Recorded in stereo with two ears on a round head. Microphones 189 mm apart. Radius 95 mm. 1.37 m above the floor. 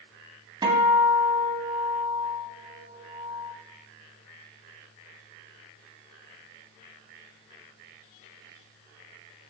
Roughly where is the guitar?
Right.